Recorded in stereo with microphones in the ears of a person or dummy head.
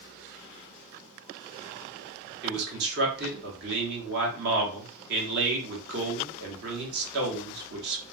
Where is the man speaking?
55° right (ahead or behind), 1.1 m.